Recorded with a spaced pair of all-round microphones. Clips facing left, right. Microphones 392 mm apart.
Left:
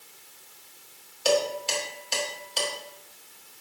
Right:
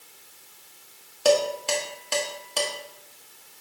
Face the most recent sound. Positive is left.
turn(degrees=-60)  # may be behind; listen again after turning